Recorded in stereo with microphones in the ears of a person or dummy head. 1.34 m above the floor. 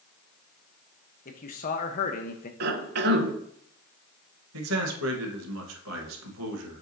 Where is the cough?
55° right (ahead or behind), 0.8 m.